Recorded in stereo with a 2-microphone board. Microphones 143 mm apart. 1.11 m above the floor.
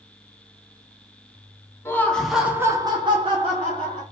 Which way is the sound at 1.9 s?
15° left (ahead or behind).